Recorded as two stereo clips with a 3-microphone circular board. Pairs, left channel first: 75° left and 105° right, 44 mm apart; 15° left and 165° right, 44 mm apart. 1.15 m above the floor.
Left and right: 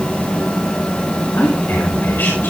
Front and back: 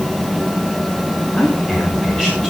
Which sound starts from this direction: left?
A man speaking, at 1.4 s.